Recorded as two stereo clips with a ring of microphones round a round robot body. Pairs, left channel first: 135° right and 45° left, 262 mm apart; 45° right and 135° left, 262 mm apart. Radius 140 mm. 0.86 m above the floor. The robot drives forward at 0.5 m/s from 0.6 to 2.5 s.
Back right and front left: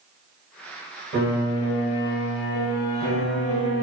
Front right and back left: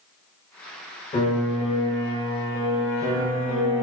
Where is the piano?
10° left, 1.4 m; by 3.8 s 20° left, 0.9 m.